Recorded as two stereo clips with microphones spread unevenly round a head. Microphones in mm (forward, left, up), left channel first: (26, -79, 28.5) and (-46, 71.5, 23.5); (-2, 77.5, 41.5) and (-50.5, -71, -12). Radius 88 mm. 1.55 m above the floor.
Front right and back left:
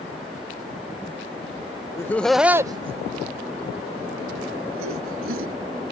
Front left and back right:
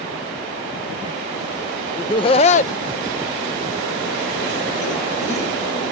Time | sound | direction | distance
2.0 | laughter | 10° left | ?